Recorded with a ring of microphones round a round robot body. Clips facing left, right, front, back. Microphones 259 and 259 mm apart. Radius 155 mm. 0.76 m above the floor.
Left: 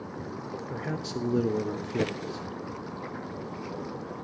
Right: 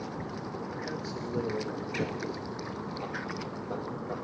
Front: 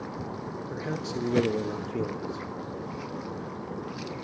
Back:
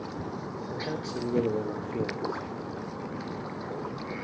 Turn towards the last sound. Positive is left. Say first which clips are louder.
# left 3 dB, front 1 dB
turn(degrees=75)